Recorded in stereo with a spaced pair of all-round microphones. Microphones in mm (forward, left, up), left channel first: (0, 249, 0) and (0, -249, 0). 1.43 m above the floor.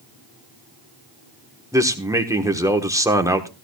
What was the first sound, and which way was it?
A man speaking, 5° right (ahead or behind).